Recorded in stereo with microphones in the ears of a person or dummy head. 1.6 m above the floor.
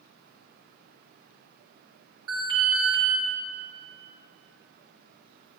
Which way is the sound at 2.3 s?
20° right (ahead or behind).